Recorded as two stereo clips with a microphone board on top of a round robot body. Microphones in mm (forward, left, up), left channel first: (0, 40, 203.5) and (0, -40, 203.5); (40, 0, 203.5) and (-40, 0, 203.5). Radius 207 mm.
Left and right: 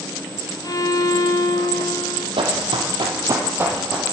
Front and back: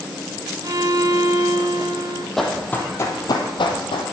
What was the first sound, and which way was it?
A violin, 135° left.